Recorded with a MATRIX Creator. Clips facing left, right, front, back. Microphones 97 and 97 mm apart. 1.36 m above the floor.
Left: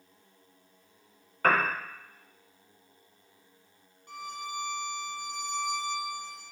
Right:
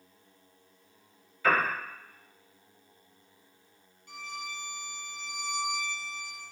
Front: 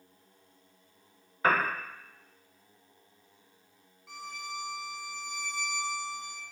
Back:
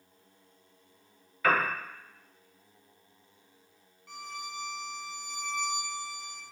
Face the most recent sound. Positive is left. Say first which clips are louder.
# left 3 dB, even
turn(degrees=85)